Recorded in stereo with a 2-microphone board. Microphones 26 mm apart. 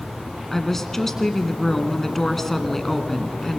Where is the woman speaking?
10° left (ahead or behind), 1.6 m.